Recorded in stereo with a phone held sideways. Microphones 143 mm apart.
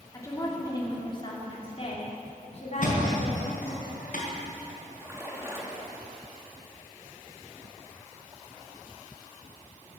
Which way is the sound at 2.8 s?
65° left (ahead or behind).